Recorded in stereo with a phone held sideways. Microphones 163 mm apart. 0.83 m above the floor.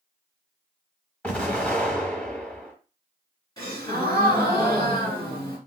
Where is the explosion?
10° left (ahead or behind), 1.2 m.